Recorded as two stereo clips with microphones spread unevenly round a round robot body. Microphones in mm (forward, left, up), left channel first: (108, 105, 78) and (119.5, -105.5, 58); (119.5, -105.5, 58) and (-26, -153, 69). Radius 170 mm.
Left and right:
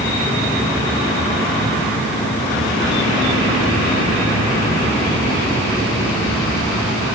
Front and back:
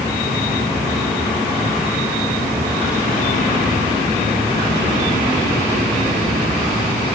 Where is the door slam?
I don't hear a door slam.